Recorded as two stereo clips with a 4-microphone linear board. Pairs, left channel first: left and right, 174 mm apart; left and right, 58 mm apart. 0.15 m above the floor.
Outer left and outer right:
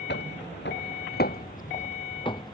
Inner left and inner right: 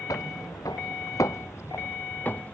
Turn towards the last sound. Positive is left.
turn(degrees=20)  # may be behind; listen again after turning